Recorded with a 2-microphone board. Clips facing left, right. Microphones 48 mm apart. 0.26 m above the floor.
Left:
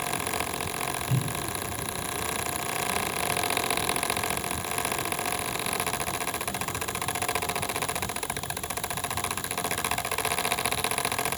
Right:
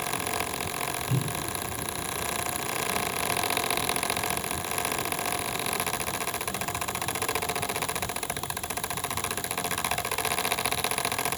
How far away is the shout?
No shout in this recording.